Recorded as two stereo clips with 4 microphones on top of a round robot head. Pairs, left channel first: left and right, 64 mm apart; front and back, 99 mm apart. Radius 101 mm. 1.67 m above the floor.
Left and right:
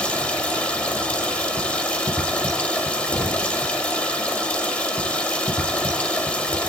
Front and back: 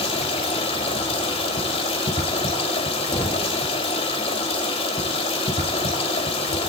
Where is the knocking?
70° left, 3.5 m.